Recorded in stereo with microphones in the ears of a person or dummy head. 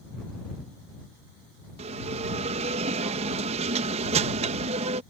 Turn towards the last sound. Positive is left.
turn(degrees=-35)  # may be behind; listen again after turning